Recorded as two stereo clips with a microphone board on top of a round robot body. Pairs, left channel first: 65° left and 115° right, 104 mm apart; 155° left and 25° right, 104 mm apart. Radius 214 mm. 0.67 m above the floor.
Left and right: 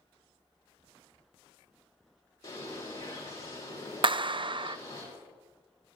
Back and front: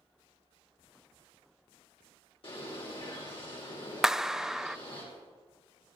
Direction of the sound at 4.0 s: 105° right.